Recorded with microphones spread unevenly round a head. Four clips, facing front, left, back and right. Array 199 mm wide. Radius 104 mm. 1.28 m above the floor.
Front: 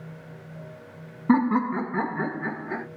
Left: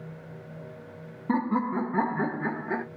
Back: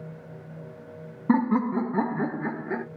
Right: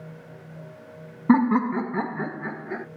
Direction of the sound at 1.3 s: 90° right.